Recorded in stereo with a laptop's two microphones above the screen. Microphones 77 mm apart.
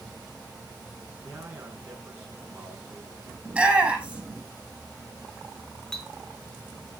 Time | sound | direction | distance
1.2 | a man speaking | 35° right (ahead or behind) | 9 m
3.5 | a shout | 15° right (ahead or behind) | 7.5 m
5.9 | a clink | 10° left (ahead or behind) | 1.0 m